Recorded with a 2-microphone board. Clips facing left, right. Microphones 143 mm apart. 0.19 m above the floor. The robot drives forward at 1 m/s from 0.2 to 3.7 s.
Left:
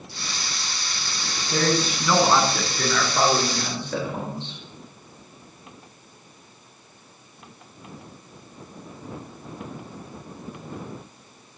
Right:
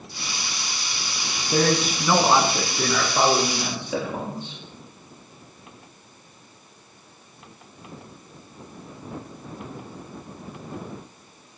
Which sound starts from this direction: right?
A man speaking, at 1.5 s.